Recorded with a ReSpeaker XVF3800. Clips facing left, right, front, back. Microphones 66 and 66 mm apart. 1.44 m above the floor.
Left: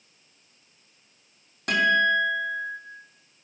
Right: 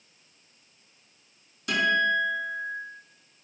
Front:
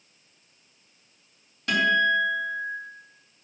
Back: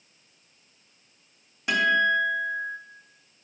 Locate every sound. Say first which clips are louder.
1.7 s a guitar: left 3 dB, even; 110° left, 2 m